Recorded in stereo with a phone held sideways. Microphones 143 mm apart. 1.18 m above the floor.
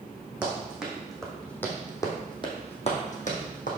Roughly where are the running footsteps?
Centre.